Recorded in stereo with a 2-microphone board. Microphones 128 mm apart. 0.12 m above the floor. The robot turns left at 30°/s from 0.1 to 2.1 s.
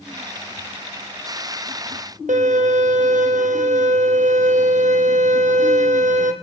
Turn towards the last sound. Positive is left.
turn(degrees=-75)  # may be behind; listen again after turning